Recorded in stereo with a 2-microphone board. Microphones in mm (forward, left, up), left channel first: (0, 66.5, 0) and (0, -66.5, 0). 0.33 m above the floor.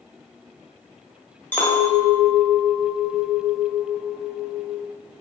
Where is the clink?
15° left (ahead or behind), 1.0 m.